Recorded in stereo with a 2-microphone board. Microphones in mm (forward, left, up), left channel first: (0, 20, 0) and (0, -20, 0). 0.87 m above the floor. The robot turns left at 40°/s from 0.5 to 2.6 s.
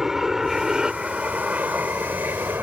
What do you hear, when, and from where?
0.0 s an aircraft: 10° right (ahead or behind); by 2.6 s 70° right (ahead or behind)